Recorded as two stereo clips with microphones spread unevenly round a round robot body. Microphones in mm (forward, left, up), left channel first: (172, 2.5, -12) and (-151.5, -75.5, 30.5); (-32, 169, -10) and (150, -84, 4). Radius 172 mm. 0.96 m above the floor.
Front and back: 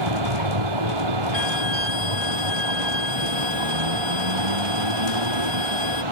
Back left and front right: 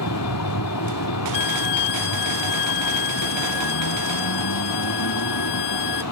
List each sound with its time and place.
0.0 s a vehicle: 175° left
1.3 s a violin: 100° left